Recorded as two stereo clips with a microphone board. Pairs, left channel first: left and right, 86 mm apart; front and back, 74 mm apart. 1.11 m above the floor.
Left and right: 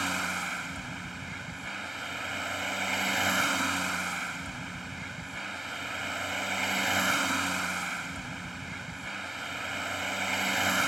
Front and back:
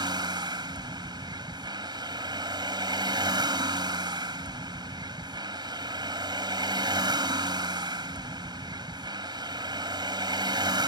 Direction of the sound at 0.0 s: Straight behind.